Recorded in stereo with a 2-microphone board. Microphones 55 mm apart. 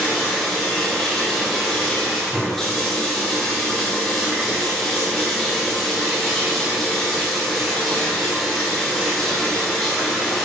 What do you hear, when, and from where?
0.0 s running water: 10° left (ahead or behind), 2 m